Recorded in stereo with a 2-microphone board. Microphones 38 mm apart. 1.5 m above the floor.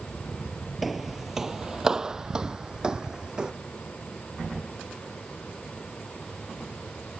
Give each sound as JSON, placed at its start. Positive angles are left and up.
{"t": 0.8, "sound": "footsteps", "side_deg": -5}